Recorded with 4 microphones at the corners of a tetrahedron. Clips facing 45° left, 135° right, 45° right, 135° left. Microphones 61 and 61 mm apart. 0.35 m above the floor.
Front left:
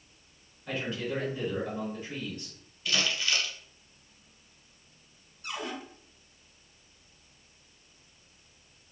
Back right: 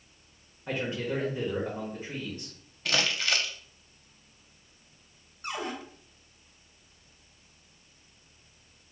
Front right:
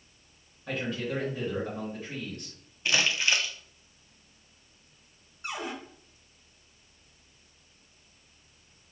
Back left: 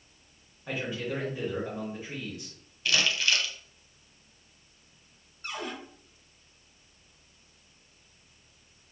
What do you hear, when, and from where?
0.7 s a man speaking: 155° right, 1.1 m
2.9 s crumpling: 110° right, 0.6 m
5.4 s a cupboard door: 115° right, 1.0 m